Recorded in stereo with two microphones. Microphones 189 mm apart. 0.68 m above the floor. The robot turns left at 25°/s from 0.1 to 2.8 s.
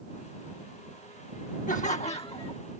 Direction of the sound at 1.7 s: 45° left (ahead or behind).